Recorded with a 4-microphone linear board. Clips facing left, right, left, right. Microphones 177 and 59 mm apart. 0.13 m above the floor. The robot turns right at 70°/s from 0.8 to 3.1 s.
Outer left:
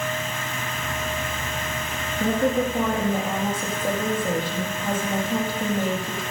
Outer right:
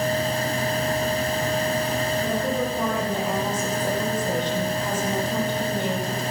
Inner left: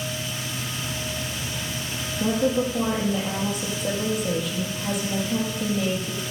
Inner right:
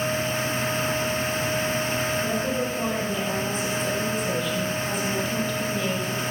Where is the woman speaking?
110° left, 4.5 m; by 6.2 s 170° left, 4.5 m.